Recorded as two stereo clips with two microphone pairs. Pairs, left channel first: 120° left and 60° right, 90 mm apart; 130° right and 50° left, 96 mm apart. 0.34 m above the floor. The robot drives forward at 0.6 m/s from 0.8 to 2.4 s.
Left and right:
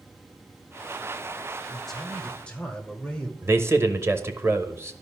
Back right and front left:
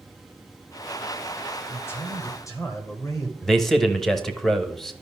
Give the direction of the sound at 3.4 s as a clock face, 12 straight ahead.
1 o'clock.